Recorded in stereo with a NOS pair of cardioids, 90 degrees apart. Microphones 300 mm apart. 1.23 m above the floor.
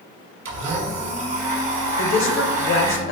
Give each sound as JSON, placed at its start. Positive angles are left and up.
{"t": 0.5, "sound": "a blender", "azimuth_deg": -60, "distance_m": 1.2}
{"t": 2.0, "sound": "a woman speaking", "azimuth_deg": 45, "distance_m": 0.7}